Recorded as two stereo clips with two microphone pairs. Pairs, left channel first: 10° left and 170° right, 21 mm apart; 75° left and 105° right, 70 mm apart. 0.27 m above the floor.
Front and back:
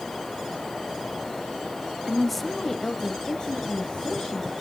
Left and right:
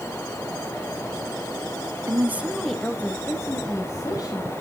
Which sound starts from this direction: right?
A woman speaking, at 2.1 s.